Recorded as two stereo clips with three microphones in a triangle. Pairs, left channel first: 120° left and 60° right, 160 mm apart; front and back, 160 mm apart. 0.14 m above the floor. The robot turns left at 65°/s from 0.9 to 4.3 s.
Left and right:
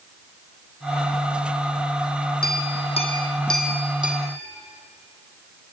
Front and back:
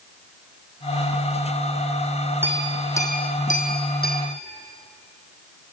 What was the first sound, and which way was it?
A clink, 105° left.